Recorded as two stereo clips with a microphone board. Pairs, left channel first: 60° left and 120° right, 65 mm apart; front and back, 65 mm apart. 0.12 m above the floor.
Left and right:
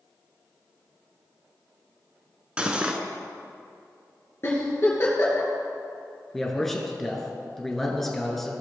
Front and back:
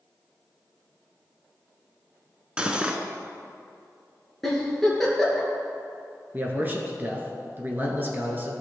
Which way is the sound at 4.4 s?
85° left.